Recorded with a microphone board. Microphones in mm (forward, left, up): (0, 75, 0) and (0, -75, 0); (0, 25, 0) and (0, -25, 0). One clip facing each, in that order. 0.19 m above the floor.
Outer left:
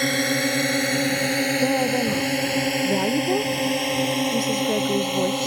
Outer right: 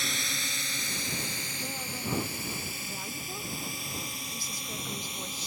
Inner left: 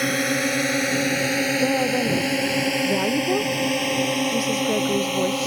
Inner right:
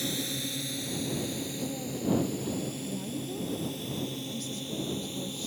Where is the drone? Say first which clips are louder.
Outer left 17 dB, inner left 13 dB; 60° left (ahead or behind); by 5.5 s 65° left (ahead or behind).